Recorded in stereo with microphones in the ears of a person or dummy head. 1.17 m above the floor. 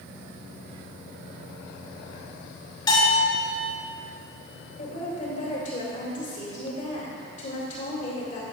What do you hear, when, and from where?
2.9 s a bell: 25° left (ahead or behind), 2.5 m
4.8 s a woman speaking: 40° left (ahead or behind), 2 m